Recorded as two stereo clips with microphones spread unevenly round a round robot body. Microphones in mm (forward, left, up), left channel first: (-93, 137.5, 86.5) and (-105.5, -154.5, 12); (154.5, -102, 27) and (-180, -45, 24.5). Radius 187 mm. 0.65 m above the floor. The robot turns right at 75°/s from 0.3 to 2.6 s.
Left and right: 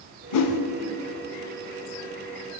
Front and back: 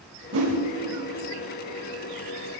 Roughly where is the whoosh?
Left.